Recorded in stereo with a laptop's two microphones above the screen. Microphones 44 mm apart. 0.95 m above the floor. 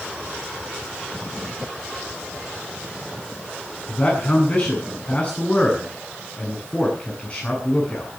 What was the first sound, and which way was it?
A man speaking, 35° left (ahead or behind).